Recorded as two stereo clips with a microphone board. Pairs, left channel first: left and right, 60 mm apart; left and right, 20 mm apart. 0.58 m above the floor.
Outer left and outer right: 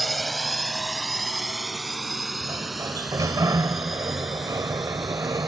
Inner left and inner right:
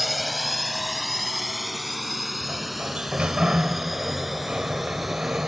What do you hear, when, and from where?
0.0 s a drone: centre (ahead or behind)
2.4 s a sliding door: 75° right (ahead or behind)